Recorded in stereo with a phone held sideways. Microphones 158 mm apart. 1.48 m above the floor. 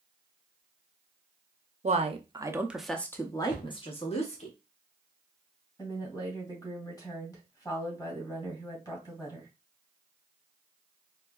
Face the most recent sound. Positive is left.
turn(degrees=25)  # may be behind; listen again after turning